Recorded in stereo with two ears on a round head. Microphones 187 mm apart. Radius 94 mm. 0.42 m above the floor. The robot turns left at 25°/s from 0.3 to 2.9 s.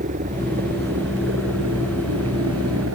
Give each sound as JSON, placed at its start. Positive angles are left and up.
{"t": 0.0, "sound": "a helicopter", "side_deg": -35}